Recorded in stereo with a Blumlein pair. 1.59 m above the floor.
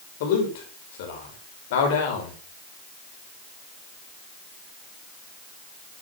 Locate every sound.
0.2 s a man speaking: 50° left, 6 m